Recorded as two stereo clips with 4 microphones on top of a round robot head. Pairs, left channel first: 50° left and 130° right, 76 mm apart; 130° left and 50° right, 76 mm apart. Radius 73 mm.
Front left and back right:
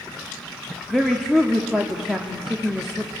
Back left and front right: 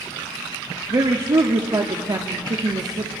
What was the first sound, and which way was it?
A woman speaking, 35° right.